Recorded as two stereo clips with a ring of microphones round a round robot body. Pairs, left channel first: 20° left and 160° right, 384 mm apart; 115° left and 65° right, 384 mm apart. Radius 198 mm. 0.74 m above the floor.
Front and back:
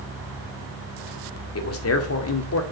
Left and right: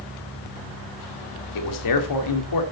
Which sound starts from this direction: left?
A man speaking, at 1.6 s.